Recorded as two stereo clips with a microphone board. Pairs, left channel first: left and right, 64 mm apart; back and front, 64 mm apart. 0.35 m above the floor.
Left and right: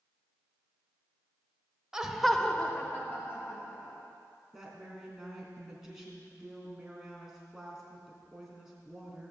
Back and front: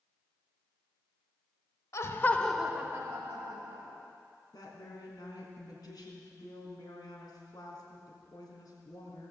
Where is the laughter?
170° right, 1.1 m; by 4.0 s 25° left, 2.5 m.